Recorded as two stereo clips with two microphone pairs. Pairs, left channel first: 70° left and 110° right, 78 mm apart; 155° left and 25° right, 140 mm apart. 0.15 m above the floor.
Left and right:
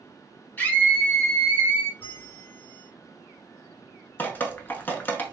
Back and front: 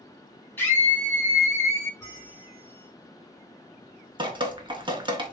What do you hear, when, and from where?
0.6 s a scream: 100° left, 1.2 m; by 1.9 s 115° right, 1.2 m
2.0 s a bell: 100° left, 1.8 m
4.2 s dripping: 15° left, 0.6 m